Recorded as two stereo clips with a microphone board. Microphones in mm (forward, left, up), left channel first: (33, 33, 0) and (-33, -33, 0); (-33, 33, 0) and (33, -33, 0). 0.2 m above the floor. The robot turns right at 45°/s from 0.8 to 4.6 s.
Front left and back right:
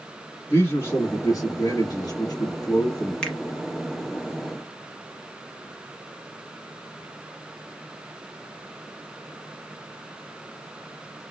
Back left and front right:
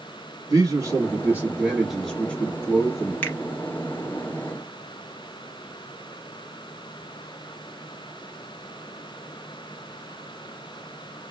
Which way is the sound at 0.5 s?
5° right.